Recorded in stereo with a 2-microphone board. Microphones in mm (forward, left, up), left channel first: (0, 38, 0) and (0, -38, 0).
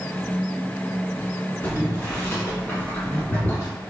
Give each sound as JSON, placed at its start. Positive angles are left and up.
{"t": 1.6, "sound": "boiling", "side_deg": 25, "distance_m": 1.7}